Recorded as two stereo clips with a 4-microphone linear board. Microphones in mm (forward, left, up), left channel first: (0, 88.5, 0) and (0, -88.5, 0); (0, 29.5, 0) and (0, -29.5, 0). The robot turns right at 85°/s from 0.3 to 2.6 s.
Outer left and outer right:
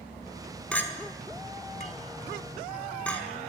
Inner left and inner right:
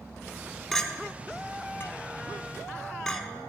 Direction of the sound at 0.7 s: 5° left (ahead or behind).